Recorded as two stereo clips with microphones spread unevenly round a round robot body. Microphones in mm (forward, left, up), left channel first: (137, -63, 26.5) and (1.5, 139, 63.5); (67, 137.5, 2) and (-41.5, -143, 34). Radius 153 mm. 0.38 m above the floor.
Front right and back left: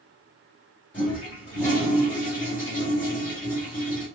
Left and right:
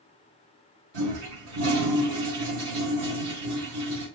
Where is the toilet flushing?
135° right, 3 m.